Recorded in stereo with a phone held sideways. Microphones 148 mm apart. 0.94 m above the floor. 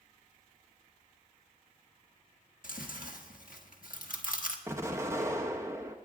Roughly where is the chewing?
Left.